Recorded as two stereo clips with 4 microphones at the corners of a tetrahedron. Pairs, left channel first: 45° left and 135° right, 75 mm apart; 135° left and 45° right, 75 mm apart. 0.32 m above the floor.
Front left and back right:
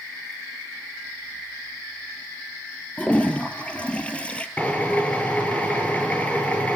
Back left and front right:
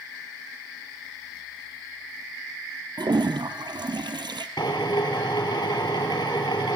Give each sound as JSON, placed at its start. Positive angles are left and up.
{"t": 3.0, "sound": "a toilet flushing", "azimuth_deg": -30, "distance_m": 2.5}
{"t": 4.6, "sound": "a drill", "azimuth_deg": 115, "distance_m": 5.0}